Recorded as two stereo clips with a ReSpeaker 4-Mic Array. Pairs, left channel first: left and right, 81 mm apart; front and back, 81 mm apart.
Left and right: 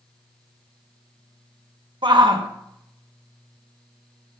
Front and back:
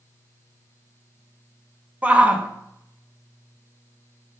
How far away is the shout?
About 1.3 m.